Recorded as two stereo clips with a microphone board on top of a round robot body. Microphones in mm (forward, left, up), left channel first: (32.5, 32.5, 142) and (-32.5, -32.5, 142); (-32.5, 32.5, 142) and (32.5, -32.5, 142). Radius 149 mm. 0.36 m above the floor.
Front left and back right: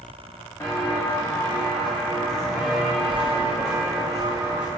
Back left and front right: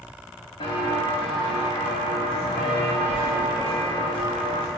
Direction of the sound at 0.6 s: 105° left.